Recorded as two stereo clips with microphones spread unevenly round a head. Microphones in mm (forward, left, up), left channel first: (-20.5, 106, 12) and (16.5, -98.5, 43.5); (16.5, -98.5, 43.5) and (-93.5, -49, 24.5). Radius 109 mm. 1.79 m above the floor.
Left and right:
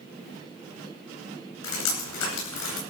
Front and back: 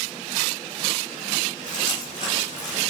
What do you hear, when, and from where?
1.6 s dripping: 95° left, 9.5 m